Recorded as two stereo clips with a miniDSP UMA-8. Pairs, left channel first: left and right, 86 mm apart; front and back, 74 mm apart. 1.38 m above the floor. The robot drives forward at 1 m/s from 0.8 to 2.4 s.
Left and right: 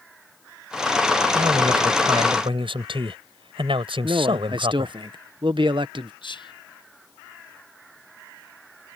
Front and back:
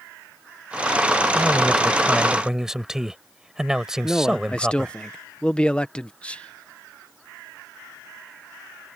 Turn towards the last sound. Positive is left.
turn(degrees=75)